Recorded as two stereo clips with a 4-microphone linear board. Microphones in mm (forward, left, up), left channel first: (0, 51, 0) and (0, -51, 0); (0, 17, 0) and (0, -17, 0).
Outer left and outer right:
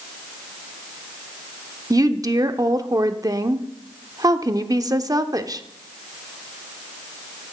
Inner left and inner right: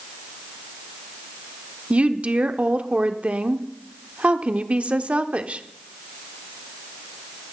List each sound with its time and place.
1.9 s a woman speaking: 35° right (ahead or behind), 0.8 m